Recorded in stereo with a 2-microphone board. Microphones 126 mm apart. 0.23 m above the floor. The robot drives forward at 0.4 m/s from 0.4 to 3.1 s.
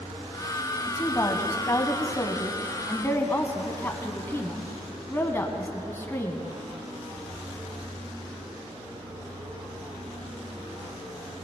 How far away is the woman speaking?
About 1.1 m.